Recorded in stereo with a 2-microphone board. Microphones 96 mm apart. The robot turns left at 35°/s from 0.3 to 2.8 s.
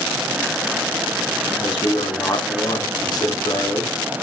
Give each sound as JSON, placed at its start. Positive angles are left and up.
{"t": 1.5, "sound": "a man speaking", "azimuth_deg": 105, "distance_m": 0.8}